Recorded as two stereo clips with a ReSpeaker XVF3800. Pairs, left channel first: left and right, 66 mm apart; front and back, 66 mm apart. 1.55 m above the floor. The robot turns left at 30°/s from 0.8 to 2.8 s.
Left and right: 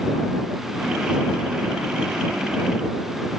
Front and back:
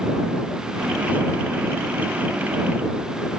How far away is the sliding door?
No sliding door in this recording.